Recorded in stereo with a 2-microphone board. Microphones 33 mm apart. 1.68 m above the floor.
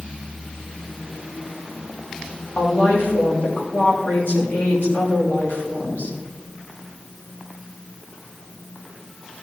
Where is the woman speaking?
80° left, 3 m.